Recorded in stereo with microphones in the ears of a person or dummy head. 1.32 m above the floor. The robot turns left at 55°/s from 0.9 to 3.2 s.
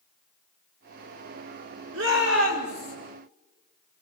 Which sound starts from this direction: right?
A shout, at 1.9 s.